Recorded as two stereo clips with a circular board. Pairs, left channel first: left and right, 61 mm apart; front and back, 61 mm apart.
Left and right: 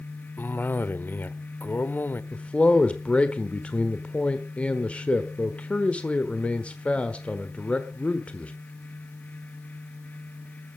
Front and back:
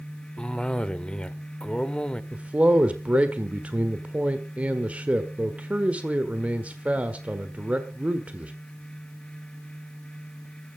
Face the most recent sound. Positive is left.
turn(degrees=135)